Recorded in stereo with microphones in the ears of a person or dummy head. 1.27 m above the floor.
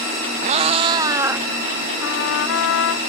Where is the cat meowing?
45° right (ahead or behind); by 1.5 s 15° right (ahead or behind).